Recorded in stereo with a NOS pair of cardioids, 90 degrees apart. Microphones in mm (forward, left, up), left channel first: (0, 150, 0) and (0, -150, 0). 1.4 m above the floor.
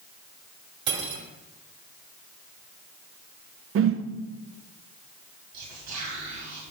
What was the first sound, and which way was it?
Cutlery clinking, 65° right.